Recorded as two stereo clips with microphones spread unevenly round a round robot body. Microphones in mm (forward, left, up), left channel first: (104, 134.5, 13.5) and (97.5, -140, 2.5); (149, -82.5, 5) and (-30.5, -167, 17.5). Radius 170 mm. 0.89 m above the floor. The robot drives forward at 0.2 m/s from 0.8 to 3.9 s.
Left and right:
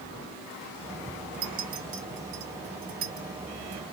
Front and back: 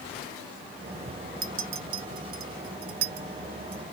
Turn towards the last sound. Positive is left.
turn(degrees=-160)